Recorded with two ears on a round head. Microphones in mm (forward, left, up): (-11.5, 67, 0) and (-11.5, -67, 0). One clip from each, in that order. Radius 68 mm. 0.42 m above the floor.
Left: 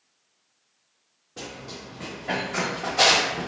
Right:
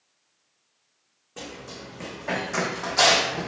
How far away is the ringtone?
No ringtone in this recording.